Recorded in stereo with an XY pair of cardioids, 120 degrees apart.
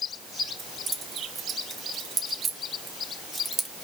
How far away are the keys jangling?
About 2.5 m.